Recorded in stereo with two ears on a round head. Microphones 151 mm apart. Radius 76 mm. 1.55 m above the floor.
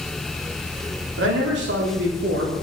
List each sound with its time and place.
1.2 s a man speaking: 80° right, 3 m; by 2.5 s 70° right (ahead or behind), 2.5 m